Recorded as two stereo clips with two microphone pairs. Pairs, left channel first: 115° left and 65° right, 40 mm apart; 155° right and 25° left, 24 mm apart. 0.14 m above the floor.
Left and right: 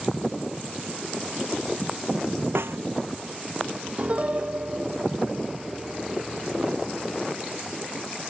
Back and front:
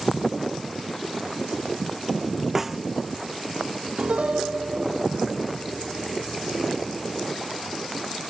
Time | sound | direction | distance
2.5 | a snare drum | 55° right | ?
4.0 | a piano | 5° right | ?